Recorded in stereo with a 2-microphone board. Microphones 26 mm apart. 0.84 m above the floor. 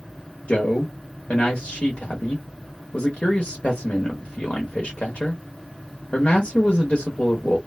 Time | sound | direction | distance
0.5 | a man speaking | 65° left (ahead or behind) | 0.8 m